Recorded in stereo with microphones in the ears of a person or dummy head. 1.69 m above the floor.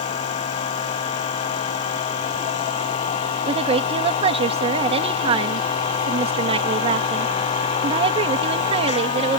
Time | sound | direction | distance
0.0 | a machine running | 30° left (ahead or behind) | ?
3.5 | a woman speaking | 35° right (ahead or behind) | ?